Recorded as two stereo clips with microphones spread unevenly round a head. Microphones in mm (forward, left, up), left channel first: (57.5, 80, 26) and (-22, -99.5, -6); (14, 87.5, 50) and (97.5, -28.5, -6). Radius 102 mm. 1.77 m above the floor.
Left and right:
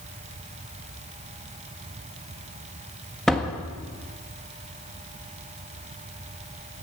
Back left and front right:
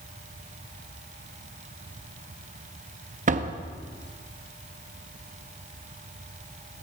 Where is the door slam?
15° right, 1.5 m.